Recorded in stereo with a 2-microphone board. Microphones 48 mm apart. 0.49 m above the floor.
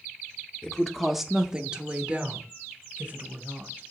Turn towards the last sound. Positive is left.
turn(degrees=-30)  # may be behind; listen again after turning